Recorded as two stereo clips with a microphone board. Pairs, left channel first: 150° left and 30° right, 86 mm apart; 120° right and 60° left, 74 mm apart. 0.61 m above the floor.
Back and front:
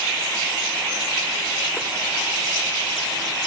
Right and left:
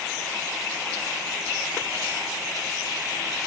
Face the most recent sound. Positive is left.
No sound to turn to.